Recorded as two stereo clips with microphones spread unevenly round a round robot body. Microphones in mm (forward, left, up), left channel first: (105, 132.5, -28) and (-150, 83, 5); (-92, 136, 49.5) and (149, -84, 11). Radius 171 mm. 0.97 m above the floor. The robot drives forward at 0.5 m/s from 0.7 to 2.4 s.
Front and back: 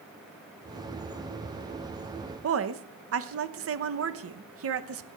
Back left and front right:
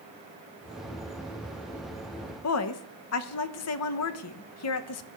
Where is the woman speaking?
175° left, 1.1 m.